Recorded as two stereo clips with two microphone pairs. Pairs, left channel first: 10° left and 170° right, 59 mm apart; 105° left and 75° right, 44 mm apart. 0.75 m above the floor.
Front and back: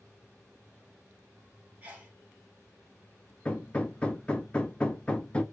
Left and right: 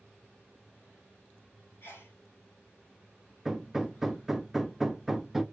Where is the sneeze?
130° left, 1.5 m.